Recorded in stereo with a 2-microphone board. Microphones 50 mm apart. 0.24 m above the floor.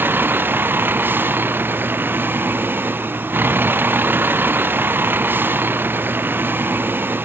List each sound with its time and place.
0.0 s a vehicle: 45° right (ahead or behind)